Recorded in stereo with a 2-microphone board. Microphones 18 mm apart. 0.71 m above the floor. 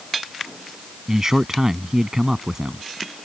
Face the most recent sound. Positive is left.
turn(degrees=-20)  # may be behind; listen again after turning